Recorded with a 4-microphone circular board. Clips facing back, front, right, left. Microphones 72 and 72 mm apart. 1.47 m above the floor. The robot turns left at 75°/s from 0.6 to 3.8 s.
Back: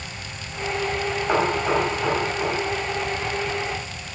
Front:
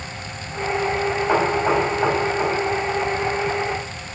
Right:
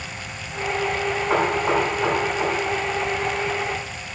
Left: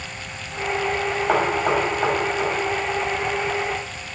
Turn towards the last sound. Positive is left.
turn(degrees=-95)